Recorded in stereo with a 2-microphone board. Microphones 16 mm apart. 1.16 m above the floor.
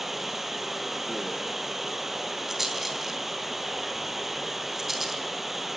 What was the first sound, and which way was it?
Running water, 20° right (ahead or behind).